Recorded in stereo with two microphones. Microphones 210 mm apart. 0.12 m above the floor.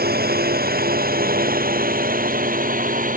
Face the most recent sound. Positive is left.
turn(degrees=-40)  # may be behind; listen again after turning